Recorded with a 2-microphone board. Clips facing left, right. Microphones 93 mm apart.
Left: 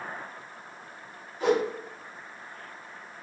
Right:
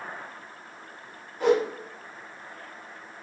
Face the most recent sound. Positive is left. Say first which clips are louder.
# right 3 dB
turn(degrees=-55)  # may be behind; listen again after turning